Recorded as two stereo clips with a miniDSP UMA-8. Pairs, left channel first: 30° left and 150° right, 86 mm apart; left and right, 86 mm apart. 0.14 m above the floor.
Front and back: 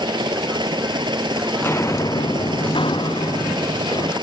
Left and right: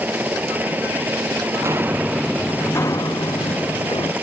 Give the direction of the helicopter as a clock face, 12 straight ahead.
5 o'clock.